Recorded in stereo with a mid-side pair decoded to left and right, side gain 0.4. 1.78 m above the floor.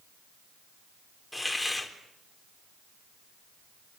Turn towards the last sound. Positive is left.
turn(degrees=10)